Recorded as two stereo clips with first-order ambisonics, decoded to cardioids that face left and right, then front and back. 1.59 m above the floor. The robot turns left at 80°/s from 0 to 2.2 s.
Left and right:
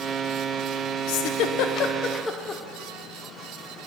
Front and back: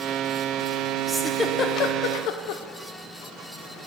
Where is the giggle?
105° left, 0.7 m; by 2.6 s 15° left, 0.7 m.